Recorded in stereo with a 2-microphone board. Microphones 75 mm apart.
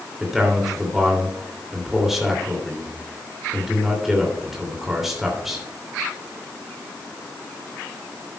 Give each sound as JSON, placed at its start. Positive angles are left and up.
{"t": 0.2, "sound": "a man speaking", "side_deg": -5, "distance_m": 3.0}